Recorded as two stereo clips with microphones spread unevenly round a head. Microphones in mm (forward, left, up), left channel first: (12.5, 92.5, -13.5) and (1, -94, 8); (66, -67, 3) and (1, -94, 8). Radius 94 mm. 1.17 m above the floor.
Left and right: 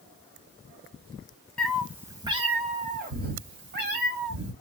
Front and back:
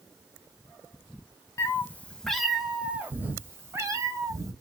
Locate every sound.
1.6 s a cat meowing: 5° right, 1.0 m; by 4.5 s 120° right, 2 m